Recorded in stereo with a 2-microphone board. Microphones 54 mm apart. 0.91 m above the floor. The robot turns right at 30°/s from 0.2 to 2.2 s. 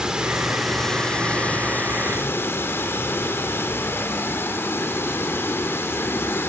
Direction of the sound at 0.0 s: 15° right.